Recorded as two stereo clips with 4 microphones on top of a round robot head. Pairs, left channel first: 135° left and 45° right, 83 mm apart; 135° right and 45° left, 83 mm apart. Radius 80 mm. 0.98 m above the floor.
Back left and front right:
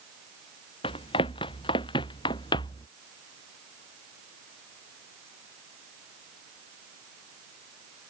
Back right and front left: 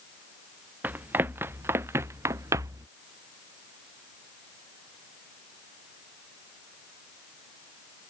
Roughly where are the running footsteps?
Behind left.